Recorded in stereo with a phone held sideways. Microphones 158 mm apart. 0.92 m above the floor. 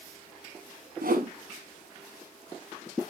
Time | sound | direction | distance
1.0 | a whoosh | 70° right (ahead or behind) | 0.9 m